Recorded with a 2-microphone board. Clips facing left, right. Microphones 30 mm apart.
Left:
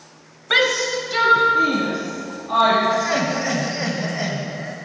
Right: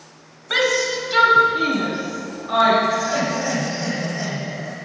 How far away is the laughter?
About 1.3 m.